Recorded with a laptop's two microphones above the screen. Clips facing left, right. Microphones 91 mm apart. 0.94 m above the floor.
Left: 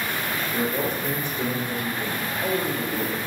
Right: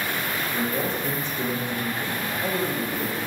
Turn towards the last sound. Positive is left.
turn(degrees=15)  # may be behind; listen again after turning